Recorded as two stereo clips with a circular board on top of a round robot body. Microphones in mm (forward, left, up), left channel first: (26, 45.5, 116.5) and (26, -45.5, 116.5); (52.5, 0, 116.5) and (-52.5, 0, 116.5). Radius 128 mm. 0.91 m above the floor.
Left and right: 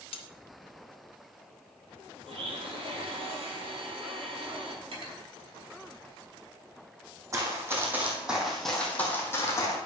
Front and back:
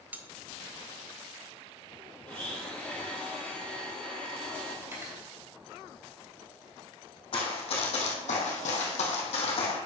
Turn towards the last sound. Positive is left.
turn(degrees=35)